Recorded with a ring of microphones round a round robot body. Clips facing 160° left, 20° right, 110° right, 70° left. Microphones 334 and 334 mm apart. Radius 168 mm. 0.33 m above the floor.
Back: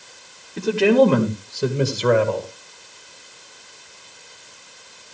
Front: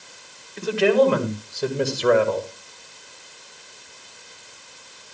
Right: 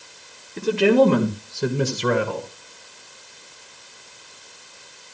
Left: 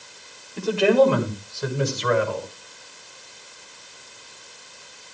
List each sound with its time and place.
0.6 s a man speaking: 170° right, 1.9 m; by 2.5 s 100° right, 1.7 m